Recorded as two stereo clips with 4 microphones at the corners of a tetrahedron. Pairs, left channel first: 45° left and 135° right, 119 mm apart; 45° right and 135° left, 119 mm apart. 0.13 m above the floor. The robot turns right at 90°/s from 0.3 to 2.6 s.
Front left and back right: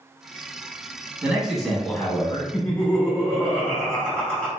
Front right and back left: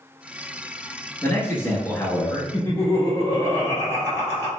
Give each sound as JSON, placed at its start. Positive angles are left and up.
{"t": 1.2, "sound": "a man speaking", "azimuth_deg": -80, "distance_m": 1.1}
{"t": 2.5, "sound": "laughter", "azimuth_deg": -25, "distance_m": 1.7}